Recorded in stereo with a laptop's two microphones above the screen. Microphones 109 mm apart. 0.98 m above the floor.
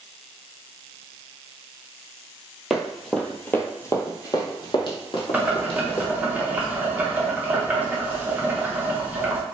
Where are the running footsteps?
Centre (ahead or behind), 1.1 m; by 6.2 s 60° left (ahead or behind), 1.9 m.